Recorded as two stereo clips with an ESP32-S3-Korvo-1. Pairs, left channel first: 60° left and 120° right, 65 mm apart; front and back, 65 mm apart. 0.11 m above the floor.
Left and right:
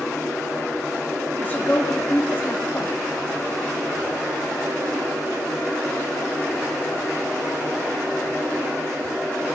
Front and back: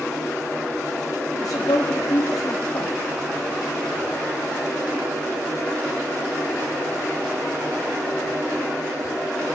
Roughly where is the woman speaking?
Ahead.